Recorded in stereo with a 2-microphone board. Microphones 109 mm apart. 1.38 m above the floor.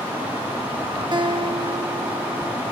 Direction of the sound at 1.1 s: 45° right (ahead or behind).